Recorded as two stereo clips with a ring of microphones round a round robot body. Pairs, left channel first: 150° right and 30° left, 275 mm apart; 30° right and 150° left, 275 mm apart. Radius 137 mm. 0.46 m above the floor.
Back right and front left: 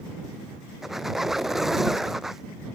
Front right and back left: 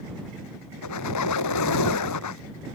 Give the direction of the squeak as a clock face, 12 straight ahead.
2 o'clock.